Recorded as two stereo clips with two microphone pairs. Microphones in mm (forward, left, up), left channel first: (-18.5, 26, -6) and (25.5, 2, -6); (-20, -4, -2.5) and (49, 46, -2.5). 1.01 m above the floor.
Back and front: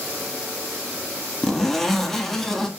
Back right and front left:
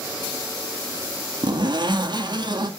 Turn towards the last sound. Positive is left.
turn(degrees=65)